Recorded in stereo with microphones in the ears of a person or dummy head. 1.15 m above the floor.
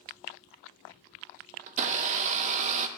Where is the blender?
45° right (ahead or behind), 0.7 m.